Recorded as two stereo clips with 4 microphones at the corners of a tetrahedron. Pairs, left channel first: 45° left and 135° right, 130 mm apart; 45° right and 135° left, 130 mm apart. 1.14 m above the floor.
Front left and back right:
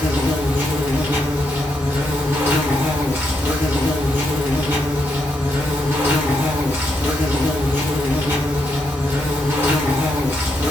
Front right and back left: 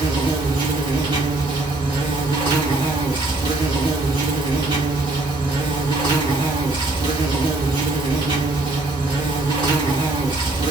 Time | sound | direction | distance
0.0 | an insect | 160° left | 0.9 m